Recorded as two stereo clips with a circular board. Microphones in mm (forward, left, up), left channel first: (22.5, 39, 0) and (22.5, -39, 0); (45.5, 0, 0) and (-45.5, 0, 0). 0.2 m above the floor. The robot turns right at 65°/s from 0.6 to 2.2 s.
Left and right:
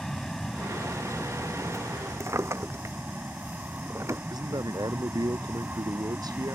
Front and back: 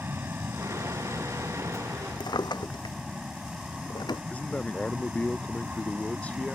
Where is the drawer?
35° right.